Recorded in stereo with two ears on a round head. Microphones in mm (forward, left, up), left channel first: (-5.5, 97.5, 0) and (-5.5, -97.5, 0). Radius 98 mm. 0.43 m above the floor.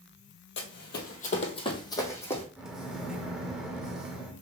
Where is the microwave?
5° right (ahead or behind), 0.6 m.